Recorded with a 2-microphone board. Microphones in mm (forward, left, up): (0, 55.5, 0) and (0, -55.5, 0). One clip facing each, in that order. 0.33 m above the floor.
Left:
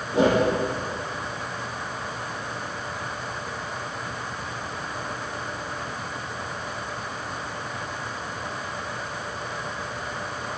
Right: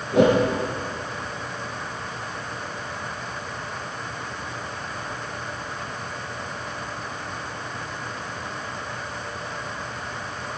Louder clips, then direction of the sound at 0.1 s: Right 3 dB; 70° right (ahead or behind).